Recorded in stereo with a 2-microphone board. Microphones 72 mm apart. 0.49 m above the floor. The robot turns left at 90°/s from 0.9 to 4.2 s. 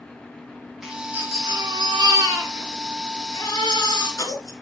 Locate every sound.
0.8 s a baby crying: 5° right, 3 m; by 4.5 s 60° left, 3 m